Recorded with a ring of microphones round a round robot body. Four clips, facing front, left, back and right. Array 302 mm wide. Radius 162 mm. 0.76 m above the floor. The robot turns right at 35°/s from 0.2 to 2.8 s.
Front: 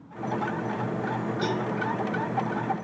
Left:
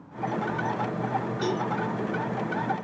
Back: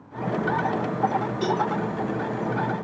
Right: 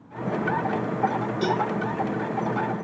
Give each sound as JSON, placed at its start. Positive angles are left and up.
{"t": 1.4, "sound": "a cowbell", "azimuth_deg": -120, "distance_m": 1.6}